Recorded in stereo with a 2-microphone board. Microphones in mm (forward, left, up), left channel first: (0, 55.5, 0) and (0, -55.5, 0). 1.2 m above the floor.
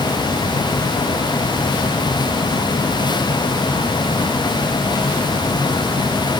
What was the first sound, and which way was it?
Only background noise.